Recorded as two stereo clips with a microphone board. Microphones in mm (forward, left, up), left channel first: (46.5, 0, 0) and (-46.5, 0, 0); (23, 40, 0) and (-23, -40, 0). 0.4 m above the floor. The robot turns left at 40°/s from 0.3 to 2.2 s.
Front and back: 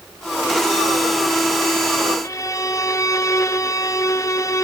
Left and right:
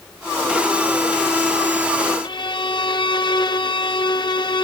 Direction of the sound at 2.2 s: 45° left.